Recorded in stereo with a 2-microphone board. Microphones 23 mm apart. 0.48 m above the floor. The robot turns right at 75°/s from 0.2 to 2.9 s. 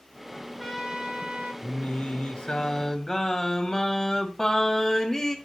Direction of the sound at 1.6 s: 55° left.